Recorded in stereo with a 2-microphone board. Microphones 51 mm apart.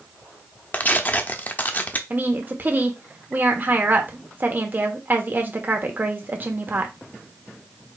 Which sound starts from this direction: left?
Tearing paper, at 0.7 s.